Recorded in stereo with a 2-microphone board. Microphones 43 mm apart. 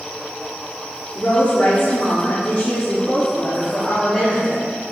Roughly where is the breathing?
No breathing in this recording.